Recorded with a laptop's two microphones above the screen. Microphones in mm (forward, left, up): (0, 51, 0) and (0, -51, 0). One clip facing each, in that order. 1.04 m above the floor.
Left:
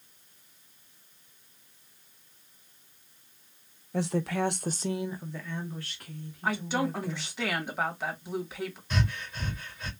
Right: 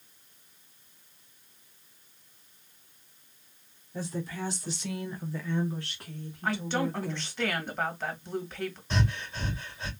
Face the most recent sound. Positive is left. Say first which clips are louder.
# right 2 dB
turn(degrees=-30)  # may be behind; listen again after turning